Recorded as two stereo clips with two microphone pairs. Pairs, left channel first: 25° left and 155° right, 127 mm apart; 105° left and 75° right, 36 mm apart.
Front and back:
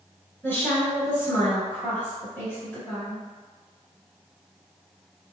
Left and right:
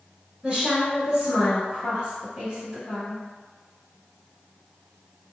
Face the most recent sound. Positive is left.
turn(degrees=-35)